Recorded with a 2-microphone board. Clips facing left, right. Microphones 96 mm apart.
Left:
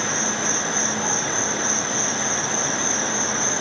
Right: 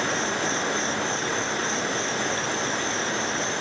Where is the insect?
25° left (ahead or behind).